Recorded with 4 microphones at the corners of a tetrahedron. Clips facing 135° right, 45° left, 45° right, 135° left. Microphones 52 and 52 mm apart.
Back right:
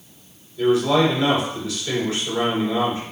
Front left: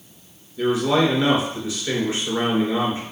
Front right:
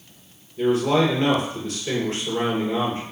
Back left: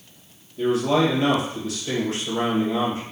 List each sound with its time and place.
0.6 s a man speaking: 10° right, 2.0 m